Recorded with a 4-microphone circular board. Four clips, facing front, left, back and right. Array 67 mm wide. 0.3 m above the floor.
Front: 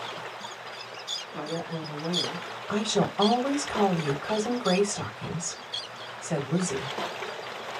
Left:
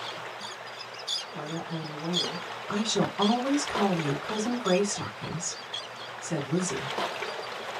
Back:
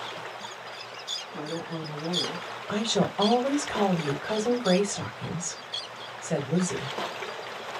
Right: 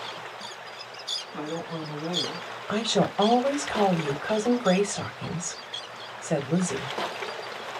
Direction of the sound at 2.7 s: 110° right.